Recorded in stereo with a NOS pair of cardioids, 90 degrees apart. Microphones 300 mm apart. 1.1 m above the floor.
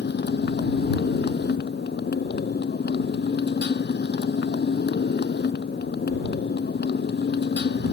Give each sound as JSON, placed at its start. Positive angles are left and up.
{"t": 0.0, "sound": "a motorcycle", "azimuth_deg": 35}